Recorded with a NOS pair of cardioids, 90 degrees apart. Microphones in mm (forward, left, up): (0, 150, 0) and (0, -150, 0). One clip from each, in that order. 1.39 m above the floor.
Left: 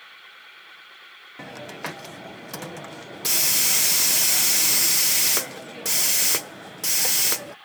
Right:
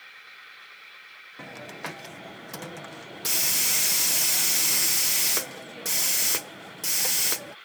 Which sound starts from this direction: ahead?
A hiss, at 1.4 s.